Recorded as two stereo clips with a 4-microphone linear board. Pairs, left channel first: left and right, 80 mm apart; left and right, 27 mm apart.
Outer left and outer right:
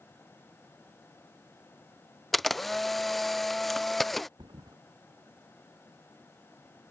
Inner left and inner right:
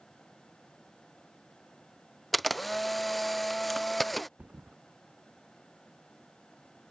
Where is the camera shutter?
Centre (ahead or behind).